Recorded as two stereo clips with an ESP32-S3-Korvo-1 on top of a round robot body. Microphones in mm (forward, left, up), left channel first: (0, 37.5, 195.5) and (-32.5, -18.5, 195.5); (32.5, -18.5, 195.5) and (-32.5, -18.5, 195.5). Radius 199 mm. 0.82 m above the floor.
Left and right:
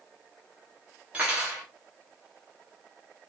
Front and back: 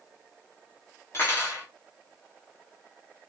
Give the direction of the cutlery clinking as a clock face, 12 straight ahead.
2 o'clock.